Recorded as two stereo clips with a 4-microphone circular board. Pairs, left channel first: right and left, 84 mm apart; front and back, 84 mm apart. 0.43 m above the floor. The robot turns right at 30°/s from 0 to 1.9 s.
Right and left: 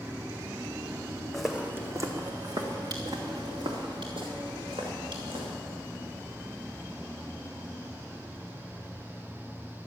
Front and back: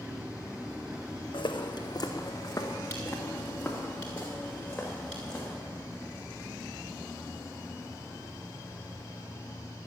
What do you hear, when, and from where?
1.3 s footsteps: 5° right, 1.3 m; by 5.5 s 85° left, 5 m